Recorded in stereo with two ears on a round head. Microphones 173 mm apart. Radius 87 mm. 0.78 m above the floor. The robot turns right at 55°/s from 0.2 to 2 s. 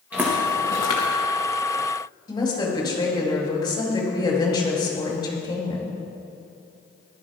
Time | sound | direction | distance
0.1 | footsteps | 10° right (ahead or behind) | 3.5 m
2.3 | a woman speaking | 25° left (ahead or behind) | 4.5 m